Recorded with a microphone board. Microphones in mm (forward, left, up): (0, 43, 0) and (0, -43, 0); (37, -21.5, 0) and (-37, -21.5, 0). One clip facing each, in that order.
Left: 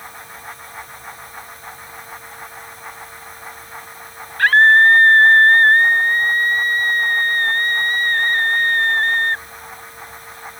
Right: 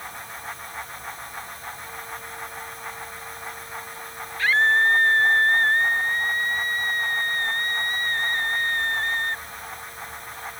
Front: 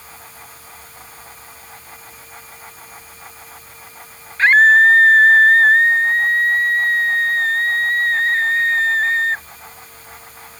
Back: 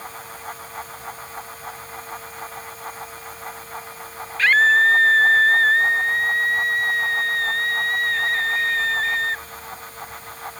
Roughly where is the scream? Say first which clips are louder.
Left 9 dB, front 5 dB; ahead left.